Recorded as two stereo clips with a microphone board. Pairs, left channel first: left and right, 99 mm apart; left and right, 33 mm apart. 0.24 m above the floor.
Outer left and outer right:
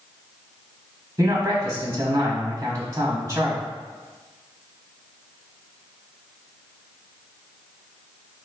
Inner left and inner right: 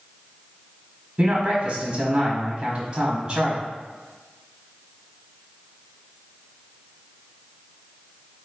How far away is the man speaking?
About 1.2 m.